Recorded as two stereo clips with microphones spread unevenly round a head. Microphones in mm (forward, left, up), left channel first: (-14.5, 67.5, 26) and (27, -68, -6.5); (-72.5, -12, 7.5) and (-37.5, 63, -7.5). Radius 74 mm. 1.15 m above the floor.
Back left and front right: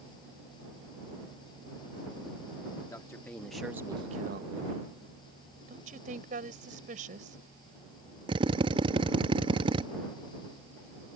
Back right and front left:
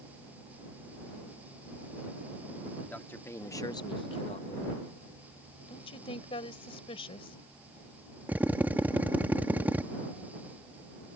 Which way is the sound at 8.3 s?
15° right.